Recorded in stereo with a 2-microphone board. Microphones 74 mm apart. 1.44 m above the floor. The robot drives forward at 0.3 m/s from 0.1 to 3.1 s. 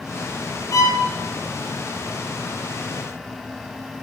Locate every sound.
0.7 s a violin: 55° left (ahead or behind), 0.6 m